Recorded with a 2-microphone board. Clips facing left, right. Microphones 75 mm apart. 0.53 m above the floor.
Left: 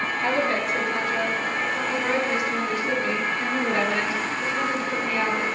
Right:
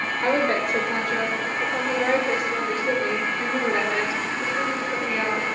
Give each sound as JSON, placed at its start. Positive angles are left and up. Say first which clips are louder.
{"t": 0.2, "sound": "a woman speaking", "louder": "right 3 dB", "side_deg": -60, "distance_m": 2.0}